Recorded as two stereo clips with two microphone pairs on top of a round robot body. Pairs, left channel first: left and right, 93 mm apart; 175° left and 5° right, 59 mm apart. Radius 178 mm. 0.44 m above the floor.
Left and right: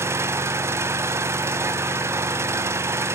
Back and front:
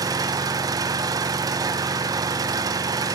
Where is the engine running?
25° right, 0.9 m.